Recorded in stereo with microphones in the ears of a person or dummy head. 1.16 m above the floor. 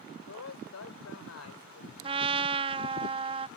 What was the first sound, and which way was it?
A man speaking, 85° left.